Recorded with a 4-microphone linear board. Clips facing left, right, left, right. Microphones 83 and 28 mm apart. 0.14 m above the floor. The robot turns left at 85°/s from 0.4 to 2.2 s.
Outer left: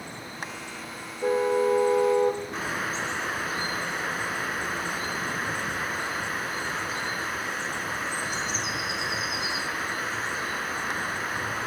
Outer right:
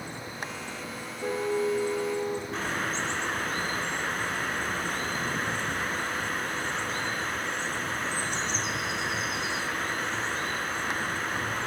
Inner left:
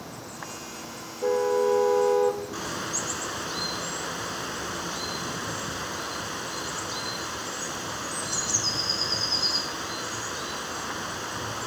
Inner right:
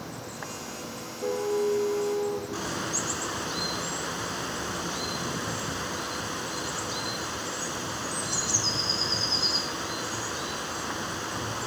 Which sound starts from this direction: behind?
A car horn, at 1.2 s.